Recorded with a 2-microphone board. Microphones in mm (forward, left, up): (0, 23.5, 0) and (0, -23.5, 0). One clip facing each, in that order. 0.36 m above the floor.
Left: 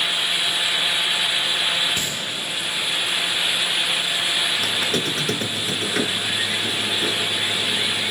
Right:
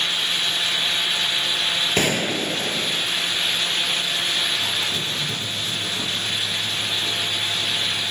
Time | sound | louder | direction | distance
2.0 | a gunshot | right 6 dB | 55° right (ahead or behind) | 1.2 m
4.6 | a squeak | left 2 dB | 85° left | 1.5 m